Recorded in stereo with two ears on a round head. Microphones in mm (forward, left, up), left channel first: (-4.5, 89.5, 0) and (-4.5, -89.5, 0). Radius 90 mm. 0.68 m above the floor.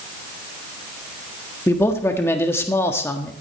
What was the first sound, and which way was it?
A man speaking, 15° left (ahead or behind).